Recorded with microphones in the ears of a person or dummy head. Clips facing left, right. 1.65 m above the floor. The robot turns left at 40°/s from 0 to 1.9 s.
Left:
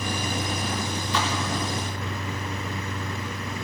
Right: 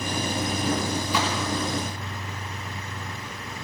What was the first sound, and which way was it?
A splash, 10° right (ahead or behind).